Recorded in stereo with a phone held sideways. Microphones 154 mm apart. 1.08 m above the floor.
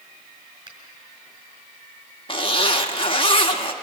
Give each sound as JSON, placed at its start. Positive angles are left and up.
{"t": 0.7, "sound": "a finger snap", "side_deg": -35, "distance_m": 6.0}
{"t": 2.3, "sound": "a zipper", "side_deg": 35, "distance_m": 1.4}